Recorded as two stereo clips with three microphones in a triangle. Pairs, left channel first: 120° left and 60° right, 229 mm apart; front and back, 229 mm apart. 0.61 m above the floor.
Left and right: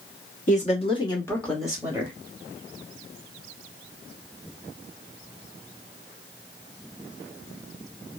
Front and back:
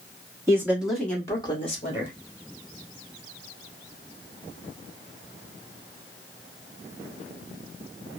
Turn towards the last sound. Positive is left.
turn(degrees=5)